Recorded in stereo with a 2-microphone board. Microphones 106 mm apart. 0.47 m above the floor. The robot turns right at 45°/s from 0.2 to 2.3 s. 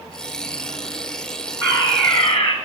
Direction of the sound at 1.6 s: 30° left.